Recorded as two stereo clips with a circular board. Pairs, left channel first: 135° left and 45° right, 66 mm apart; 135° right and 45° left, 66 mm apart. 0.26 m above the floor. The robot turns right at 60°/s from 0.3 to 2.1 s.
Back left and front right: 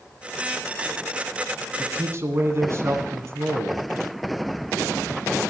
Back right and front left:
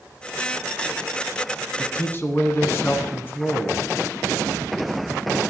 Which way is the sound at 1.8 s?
100° right.